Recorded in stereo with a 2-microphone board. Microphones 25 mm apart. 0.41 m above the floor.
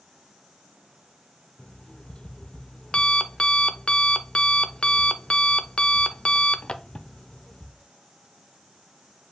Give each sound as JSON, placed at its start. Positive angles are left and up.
{"t": 1.6, "sound": "an alarm clock", "side_deg": 45, "distance_m": 0.5}